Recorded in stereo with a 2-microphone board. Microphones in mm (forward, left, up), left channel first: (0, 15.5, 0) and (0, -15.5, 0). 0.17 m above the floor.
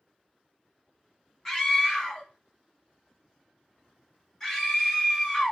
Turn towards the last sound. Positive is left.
turn(degrees=15)  # may be behind; listen again after turning